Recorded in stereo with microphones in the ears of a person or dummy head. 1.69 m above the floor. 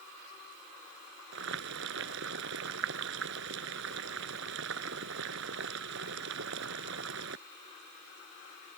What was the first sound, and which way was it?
Boiling, 65° right (ahead or behind).